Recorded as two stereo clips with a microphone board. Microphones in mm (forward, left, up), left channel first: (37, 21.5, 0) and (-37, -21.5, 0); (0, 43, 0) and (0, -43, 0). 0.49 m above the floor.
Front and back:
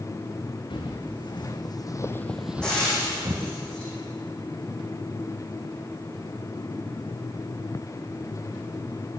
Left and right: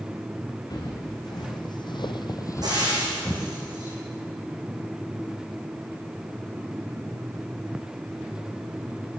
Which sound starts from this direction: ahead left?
Footsteps, at 0.7 s.